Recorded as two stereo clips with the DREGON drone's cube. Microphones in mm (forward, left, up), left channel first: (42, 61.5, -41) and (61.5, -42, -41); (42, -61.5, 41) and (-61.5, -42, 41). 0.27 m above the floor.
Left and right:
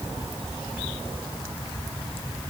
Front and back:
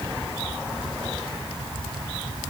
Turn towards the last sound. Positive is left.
No sound to turn to.